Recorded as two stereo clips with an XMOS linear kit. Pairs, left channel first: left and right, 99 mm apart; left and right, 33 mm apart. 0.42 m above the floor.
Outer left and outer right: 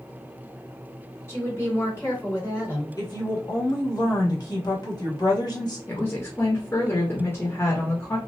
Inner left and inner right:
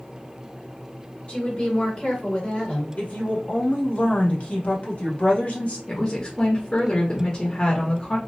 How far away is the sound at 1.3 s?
About 1.7 m.